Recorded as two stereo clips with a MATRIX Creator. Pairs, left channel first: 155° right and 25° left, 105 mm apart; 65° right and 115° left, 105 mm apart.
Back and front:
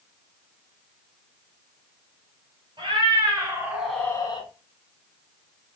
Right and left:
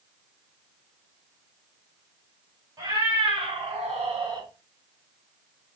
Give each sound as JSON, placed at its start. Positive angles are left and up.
{"t": 2.8, "sound": "a cat meowing", "azimuth_deg": 65, "distance_m": 1.8}